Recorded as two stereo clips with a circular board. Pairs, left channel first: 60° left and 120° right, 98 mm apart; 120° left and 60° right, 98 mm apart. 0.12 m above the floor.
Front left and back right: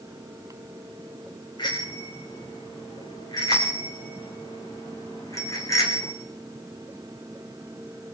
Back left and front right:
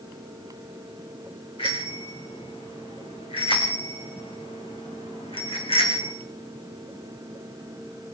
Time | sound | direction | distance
1.6 | a bicycle bell | 100° left | 10 m